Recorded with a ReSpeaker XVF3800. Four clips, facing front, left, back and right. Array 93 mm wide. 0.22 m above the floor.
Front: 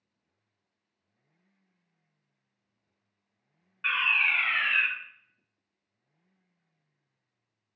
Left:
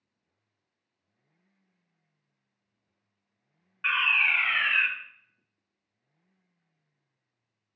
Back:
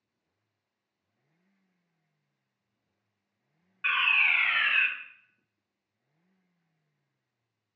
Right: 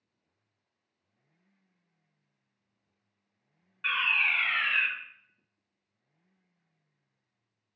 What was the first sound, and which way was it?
A fire alarm, 105° left.